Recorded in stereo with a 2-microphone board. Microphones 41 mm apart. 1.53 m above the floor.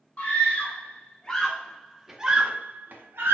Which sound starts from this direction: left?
A scream, at 0.2 s.